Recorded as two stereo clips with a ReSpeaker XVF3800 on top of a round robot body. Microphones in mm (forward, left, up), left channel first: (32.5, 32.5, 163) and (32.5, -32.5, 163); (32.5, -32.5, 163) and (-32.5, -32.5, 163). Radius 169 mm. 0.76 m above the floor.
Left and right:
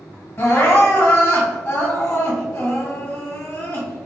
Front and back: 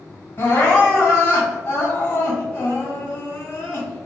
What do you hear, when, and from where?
0.4 s crying: 40° left, 1.6 m